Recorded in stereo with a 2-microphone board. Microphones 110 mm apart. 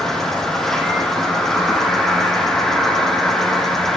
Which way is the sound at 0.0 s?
5° left (ahead or behind).